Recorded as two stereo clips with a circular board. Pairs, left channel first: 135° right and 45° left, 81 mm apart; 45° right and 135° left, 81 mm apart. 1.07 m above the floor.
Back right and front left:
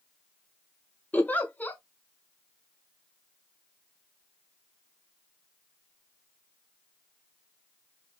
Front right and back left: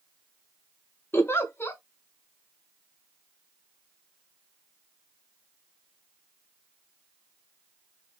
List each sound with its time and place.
1.1 s a giggle: 80° right, 0.6 m